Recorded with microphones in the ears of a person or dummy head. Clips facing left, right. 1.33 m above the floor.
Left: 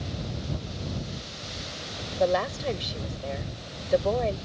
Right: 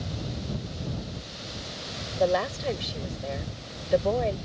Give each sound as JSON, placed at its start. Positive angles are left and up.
{"t": 2.2, "sound": "a woman speaking", "side_deg": 0}